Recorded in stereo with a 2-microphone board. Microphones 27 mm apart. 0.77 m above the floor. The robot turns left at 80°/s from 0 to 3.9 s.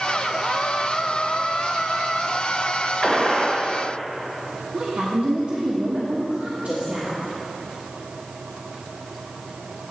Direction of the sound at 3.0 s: 30° left.